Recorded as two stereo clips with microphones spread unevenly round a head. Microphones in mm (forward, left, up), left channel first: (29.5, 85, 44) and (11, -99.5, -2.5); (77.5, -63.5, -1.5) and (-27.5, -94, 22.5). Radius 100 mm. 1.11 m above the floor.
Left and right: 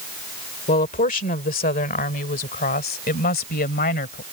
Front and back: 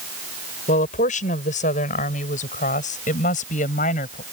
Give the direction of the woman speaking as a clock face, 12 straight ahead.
11 o'clock.